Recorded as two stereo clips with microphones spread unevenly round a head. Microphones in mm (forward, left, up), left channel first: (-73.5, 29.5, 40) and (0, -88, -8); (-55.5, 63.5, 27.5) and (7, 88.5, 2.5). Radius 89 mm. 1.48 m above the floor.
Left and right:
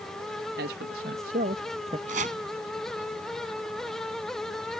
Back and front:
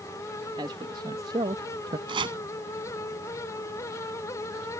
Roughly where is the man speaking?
Ahead right.